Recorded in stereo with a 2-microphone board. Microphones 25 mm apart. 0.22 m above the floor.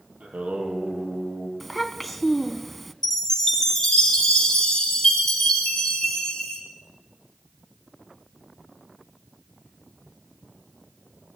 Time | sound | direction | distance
0.2 | singing | 80° right | 5 m
1.6 | a child speaking | 5° left (ahead or behind) | 1.4 m
3.0 | a chime | 20° left (ahead or behind) | 5 m